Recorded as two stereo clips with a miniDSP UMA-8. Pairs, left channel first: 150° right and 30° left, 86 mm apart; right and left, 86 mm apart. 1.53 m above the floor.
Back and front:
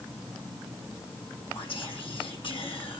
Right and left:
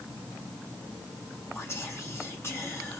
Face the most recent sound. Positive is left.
turn(degrees=-150)